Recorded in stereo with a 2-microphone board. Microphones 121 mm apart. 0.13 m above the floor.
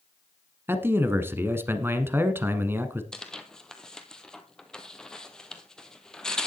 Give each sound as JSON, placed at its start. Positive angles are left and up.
{"t": 0.7, "sound": "a man speaking", "side_deg": -20, "distance_m": 1.1}
{"t": 3.1, "sound": "tearing paper", "side_deg": 5, "distance_m": 1.3}